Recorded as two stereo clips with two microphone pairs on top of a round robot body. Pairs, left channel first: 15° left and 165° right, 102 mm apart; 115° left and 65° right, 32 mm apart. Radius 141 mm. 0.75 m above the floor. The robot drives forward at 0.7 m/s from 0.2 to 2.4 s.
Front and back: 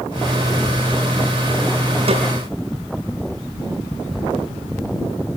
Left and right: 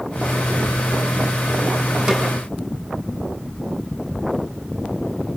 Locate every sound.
2.1 s a snare drum: 135° right, 4.5 m